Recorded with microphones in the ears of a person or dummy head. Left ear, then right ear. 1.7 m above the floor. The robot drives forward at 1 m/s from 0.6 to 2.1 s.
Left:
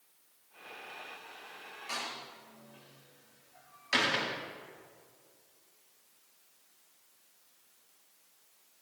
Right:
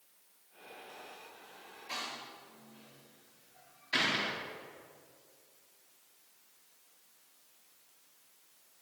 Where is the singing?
I don't hear singing.